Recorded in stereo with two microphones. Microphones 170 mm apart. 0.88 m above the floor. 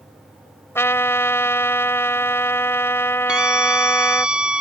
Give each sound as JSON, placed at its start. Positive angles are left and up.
{"t": 0.8, "sound": "a trumpet", "side_deg": 15}
{"t": 3.3, "sound": "a scream", "side_deg": -5}